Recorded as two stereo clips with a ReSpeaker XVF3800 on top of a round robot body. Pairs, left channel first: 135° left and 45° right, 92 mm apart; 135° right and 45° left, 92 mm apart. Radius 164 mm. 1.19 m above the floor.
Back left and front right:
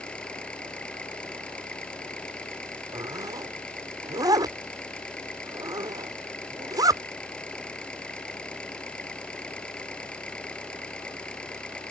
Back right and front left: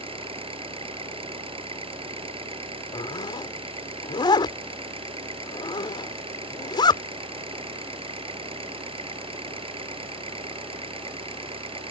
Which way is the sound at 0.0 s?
55° left.